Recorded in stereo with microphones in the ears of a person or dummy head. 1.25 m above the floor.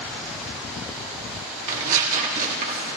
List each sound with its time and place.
1.7 s tearing paper: 45° right (ahead or behind), 2 m